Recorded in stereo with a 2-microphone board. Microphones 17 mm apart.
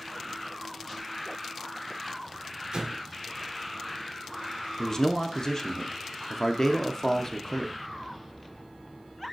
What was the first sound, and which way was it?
An explosion, 55° right (ahead or behind).